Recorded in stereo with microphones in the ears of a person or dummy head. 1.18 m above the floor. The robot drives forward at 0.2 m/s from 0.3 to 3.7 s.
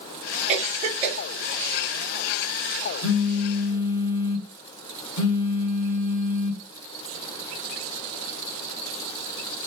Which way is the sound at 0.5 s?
25° right (ahead or behind).